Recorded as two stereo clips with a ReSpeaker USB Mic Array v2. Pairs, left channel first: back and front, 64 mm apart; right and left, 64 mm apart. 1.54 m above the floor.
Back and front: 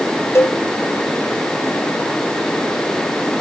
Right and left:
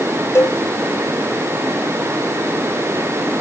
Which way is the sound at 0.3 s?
135° right.